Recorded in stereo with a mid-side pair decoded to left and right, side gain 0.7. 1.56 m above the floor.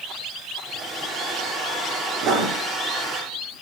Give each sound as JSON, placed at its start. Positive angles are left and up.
{"t": 0.6, "sound": "a hair dryer", "azimuth_deg": -20, "distance_m": 8.5}
{"t": 2.2, "sound": "writing", "azimuth_deg": -55, "distance_m": 8.5}